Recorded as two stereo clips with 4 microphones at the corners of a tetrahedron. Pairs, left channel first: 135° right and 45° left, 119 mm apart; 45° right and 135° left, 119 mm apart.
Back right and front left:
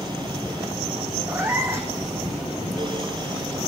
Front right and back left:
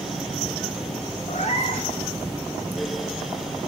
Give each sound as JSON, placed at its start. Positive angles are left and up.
{"t": 1.3, "sound": "a cat meowing", "azimuth_deg": -25, "distance_m": 1.3}